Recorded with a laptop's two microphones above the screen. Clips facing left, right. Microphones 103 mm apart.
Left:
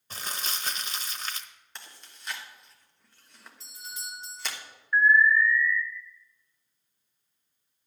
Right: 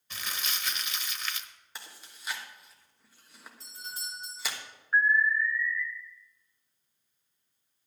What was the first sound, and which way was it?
Crumpling, 35° left (ahead or behind).